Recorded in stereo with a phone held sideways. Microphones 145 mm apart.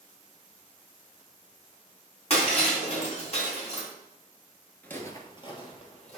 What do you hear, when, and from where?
2.3 s breaking glass: 45° left (ahead or behind), 3.5 m
4.8 s footsteps: 10° left (ahead or behind), 1.4 m; by 6.2 s 45° left (ahead or behind), 3 m